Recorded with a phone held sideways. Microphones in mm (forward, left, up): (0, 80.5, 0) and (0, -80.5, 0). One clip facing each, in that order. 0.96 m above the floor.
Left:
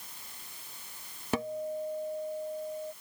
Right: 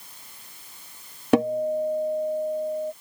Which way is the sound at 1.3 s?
65° right (ahead or behind).